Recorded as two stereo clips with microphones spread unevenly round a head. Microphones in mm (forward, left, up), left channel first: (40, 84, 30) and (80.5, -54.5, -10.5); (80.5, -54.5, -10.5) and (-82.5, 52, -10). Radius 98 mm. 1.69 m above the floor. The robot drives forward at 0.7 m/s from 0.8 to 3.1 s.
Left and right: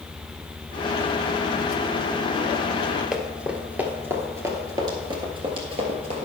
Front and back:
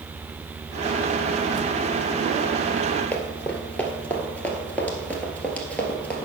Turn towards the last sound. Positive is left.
turn(degrees=-110)